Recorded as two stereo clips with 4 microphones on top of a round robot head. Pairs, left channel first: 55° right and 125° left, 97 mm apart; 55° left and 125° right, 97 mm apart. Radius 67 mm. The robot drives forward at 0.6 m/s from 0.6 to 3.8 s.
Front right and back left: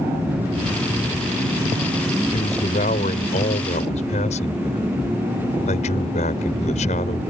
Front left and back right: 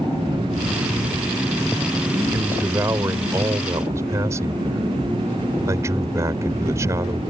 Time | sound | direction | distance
2.3 | a man speaking | 55° right | ?